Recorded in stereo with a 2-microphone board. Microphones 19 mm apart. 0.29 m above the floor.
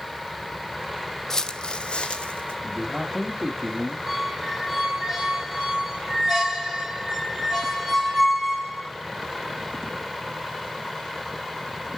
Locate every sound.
1.3 s footsteps: 30° left (ahead or behind), 0.7 m; by 2.5 s 80° left, 1.4 m
2.6 s a man speaking: centre (ahead or behind), 1.2 m
4.1 s a squeak: centre (ahead or behind), 5.5 m